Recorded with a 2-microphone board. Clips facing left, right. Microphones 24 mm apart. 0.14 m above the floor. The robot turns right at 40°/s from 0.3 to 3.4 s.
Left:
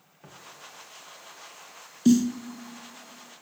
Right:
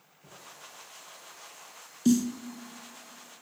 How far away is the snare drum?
About 0.6 m.